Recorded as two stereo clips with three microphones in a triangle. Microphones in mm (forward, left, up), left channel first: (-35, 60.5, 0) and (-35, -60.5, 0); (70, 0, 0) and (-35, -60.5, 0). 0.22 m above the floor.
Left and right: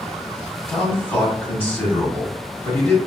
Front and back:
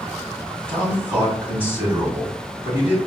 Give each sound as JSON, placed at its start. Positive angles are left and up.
{"t": 0.7, "sound": "a man speaking", "azimuth_deg": 150, "distance_m": 1.4}